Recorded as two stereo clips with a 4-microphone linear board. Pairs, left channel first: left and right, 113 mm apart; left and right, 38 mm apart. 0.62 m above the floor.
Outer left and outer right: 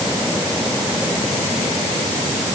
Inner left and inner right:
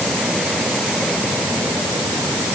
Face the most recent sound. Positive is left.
No sound to turn to.